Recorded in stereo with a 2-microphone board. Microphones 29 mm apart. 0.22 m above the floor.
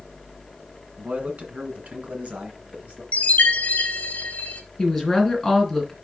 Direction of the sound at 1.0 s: 55° right (ahead or behind).